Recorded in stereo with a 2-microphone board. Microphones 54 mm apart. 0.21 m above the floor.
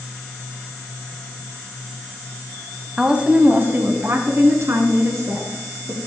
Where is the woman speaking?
10° right (ahead or behind), 1.1 m; by 6.0 s 65° right (ahead or behind), 3 m.